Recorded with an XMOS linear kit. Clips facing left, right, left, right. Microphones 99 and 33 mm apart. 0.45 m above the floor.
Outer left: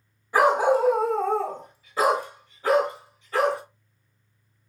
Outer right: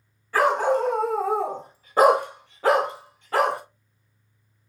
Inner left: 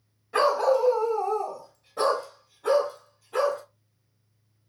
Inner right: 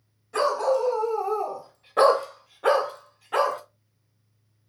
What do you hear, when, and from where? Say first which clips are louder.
0.3 s a dog barking: outer left 1 dB, inner left 1 dB; 20° left (ahead or behind), 1.5 m; by 3.6 s 75° right (ahead or behind), 1.8 m